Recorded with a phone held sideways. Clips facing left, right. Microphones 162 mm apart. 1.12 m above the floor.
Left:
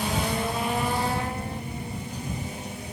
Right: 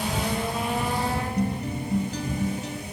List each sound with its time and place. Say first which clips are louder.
1.4 s a guitar: right 7 dB; 85° right